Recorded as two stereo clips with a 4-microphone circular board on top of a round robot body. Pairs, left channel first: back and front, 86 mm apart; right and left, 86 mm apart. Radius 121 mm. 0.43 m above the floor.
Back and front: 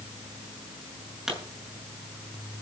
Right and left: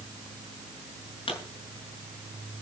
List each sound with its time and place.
1.3 s a pop: 85° right, 6.5 m